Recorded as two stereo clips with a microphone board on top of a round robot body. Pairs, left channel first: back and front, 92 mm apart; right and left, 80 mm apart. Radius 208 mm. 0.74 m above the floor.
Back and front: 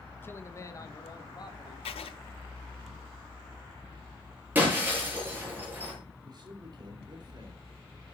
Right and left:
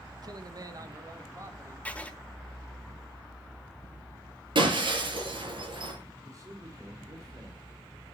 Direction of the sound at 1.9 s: 165° right.